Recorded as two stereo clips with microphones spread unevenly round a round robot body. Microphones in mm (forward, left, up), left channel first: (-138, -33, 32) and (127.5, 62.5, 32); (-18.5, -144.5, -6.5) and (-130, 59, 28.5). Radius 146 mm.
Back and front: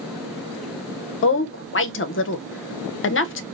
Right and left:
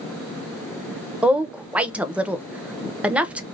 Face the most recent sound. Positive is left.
turn(degrees=-150)